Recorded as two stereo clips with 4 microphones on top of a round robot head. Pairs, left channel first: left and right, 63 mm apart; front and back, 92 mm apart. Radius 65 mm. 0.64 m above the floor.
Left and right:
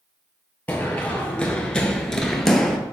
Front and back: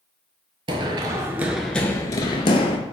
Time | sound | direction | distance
0.7 | running footsteps | 165° left | 0.8 m